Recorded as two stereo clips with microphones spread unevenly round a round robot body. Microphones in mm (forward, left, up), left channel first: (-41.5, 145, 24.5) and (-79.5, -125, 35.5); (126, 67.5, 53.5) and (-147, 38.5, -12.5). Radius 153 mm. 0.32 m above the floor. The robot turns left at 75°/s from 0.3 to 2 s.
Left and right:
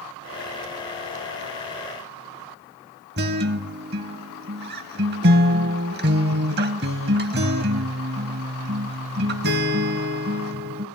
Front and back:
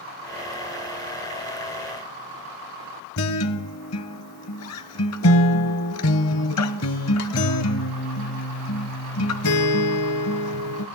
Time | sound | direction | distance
3.2 | a guitar | 40° right | 0.5 m